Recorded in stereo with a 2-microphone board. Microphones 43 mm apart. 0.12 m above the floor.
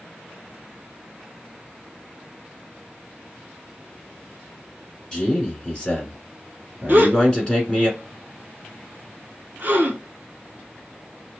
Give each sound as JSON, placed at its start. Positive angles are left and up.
{"t": 5.1, "sound": "a man speaking", "side_deg": 20, "distance_m": 1.4}
{"t": 6.9, "sound": "a gasp", "side_deg": -45, "distance_m": 0.9}